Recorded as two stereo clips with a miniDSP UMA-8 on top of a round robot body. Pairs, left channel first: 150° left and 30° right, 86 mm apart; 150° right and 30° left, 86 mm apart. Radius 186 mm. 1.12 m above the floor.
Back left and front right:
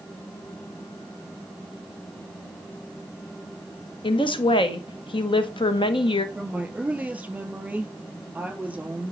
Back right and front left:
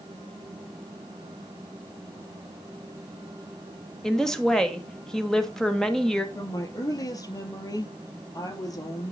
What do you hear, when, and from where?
4.0 s a woman speaking: 130° left, 1.4 m
6.3 s a woman speaking: 105° right, 3 m